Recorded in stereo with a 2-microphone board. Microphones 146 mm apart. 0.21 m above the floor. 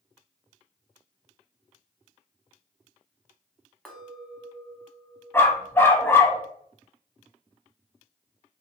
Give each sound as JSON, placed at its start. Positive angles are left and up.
{"t": 3.9, "sound": "a clink", "side_deg": 5, "distance_m": 0.7}
{"t": 5.3, "sound": "a dog barking", "side_deg": 15, "distance_m": 0.5}